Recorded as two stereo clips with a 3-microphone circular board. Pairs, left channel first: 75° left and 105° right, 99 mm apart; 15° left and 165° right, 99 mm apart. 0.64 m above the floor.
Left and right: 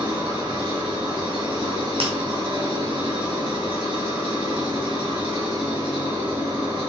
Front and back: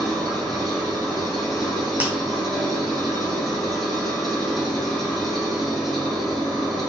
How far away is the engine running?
About 4 m.